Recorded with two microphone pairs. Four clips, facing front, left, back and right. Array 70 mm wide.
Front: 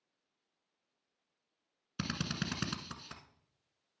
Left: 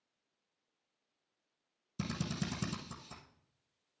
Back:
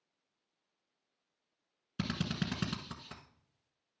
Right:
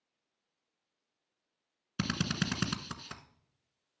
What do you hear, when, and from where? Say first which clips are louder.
2.0 s a drill: right 5 dB, back 2 dB; 80° right, 1.0 m